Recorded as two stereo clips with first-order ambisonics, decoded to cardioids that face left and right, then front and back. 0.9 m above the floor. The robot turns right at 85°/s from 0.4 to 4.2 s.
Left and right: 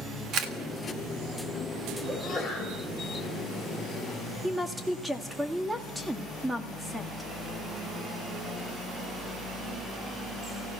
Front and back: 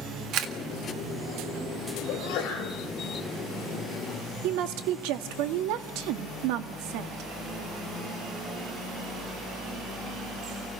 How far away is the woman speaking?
About 1.5 m.